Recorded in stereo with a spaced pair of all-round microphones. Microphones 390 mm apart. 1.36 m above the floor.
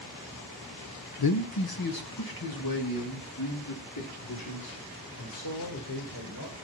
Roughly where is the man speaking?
Left.